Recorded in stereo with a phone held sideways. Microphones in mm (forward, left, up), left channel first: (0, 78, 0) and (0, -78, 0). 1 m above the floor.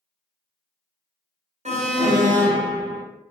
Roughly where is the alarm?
Right.